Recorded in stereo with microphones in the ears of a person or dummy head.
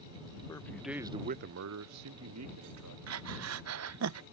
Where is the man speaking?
20° left (ahead or behind); by 3.0 s 75° right (ahead or behind).